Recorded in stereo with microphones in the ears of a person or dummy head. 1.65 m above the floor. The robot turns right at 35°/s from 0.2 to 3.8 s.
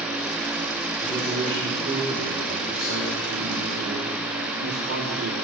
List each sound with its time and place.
1.0 s a man speaking: 155° left, 4 m; by 5.3 s 105° right, 4 m